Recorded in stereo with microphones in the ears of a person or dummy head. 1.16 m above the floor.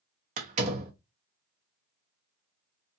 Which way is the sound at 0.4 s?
40° right (ahead or behind).